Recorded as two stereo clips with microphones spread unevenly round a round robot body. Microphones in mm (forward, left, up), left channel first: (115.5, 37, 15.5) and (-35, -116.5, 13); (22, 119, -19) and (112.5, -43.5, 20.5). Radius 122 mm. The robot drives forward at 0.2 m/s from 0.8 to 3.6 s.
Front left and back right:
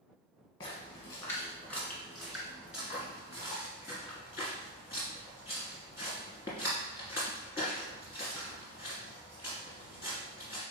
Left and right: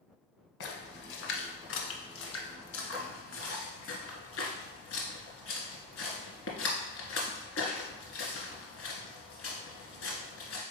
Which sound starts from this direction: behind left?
A splash, at 0.6 s.